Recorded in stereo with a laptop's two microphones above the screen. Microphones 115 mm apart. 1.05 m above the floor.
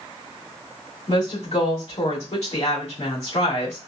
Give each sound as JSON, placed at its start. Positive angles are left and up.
{"t": 1.1, "sound": "a woman speaking", "side_deg": 70, "distance_m": 2.5}